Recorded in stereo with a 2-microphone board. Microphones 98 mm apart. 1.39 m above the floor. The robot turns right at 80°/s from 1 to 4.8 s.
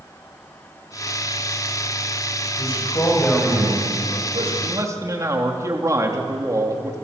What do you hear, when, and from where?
2.6 s a man speaking: 110° left, 8.5 m; by 4.5 s 95° right, 8.5 m
4.6 s a man speaking: 50° right (ahead or behind), 3 m; by 7.0 s 35° right (ahead or behind), 3 m